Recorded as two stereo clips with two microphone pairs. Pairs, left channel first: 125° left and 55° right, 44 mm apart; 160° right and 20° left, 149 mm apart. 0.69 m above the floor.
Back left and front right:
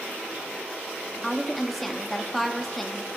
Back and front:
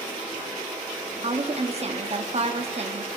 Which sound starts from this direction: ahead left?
A woman speaking, at 1.2 s.